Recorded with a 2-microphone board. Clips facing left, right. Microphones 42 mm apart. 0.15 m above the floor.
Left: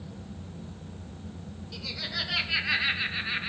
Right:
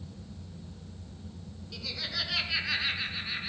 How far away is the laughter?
About 2.5 m.